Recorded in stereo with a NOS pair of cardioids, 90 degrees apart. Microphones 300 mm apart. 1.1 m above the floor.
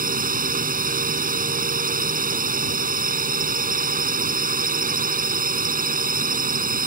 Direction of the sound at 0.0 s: 30° right.